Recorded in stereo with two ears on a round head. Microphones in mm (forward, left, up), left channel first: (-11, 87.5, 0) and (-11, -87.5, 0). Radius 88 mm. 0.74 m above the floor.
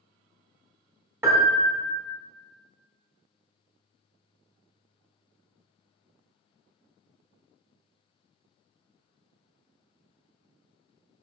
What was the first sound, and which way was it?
A piano, 15° right (ahead or behind).